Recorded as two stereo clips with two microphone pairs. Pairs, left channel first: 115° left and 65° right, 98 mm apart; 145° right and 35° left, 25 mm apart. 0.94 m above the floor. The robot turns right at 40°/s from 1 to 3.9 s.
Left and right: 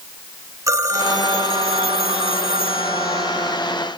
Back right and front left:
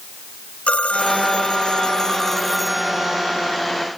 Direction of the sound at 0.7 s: 120° right.